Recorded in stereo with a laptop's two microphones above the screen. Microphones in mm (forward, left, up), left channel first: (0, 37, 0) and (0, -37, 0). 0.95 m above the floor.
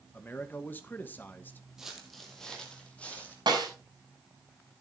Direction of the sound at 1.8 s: 5° right (ahead or behind).